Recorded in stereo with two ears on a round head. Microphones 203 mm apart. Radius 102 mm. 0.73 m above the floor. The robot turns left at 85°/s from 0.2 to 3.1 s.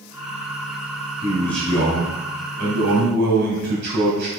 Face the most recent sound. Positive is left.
turn(degrees=-130)